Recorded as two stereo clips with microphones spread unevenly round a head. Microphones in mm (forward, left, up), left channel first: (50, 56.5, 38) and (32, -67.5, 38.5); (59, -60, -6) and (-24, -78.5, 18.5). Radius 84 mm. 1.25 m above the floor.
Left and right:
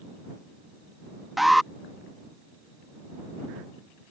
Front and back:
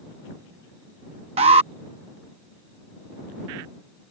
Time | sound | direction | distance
1.4 | an alarm | 175° left | ?